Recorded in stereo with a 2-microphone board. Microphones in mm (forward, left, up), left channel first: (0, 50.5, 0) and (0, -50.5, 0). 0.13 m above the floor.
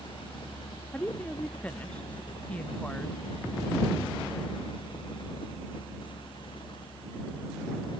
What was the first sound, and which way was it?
A woman speaking, 15° left (ahead or behind).